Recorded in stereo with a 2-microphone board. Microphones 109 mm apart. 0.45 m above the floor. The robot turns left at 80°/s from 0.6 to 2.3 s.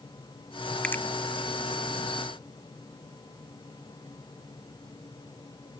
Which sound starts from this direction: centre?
A finger snap, at 0.8 s.